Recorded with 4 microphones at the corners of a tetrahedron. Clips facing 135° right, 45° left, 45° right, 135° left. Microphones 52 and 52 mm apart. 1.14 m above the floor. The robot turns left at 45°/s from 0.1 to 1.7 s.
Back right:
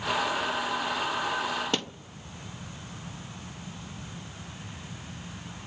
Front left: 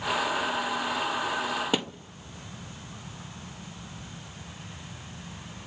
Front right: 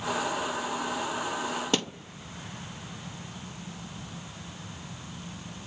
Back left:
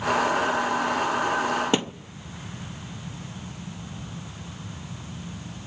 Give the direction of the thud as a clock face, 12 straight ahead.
8 o'clock.